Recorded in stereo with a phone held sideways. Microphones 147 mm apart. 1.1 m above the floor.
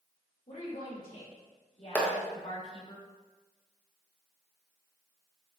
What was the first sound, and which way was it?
A woman speaking, 65° left (ahead or behind).